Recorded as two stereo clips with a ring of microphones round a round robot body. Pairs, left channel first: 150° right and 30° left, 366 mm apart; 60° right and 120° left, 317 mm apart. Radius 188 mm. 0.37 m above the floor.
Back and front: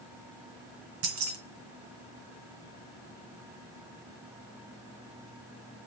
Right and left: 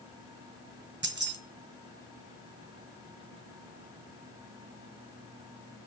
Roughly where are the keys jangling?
Ahead left.